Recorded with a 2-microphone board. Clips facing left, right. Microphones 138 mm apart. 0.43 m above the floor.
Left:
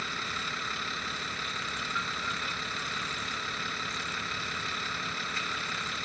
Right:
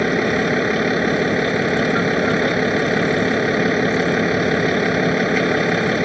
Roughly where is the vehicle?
Right.